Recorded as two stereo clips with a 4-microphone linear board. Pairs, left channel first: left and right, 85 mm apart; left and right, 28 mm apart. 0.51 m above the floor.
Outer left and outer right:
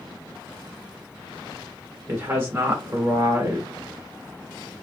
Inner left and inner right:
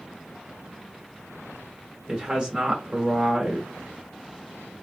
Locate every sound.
2.1 s a woman speaking: 30° right (ahead or behind), 1.1 m